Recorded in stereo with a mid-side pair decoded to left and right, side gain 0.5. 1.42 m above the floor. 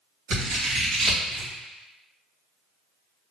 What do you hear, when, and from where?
0.3 s scissors: 65° right, 1.9 m